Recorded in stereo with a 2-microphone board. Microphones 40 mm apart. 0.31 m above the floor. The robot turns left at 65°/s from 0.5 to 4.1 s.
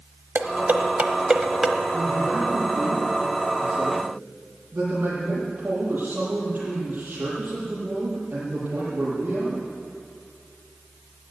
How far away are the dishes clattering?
About 1.0 m.